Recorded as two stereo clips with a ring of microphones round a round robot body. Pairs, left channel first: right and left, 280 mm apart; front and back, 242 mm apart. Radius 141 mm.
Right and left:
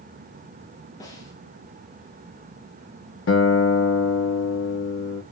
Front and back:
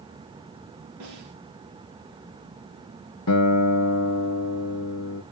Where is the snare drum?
170° right, 4.5 m.